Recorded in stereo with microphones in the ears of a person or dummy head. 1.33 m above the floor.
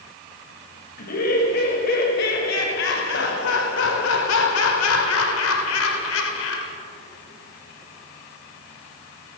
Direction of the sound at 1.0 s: 50° left (ahead or behind).